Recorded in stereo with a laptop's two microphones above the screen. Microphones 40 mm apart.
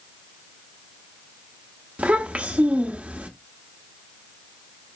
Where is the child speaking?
35° right (ahead or behind), 1.0 m.